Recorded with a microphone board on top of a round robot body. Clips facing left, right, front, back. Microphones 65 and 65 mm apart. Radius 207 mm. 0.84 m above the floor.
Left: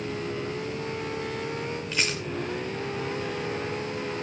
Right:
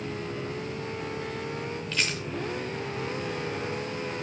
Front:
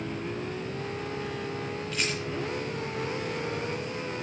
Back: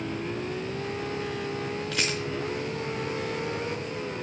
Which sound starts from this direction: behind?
A rattle, at 1.9 s.